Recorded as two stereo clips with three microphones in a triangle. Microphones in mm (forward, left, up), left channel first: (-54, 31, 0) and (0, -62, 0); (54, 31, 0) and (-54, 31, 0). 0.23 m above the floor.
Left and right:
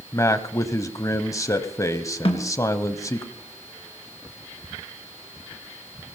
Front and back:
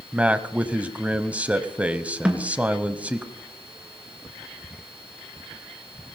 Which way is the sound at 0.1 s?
115° left.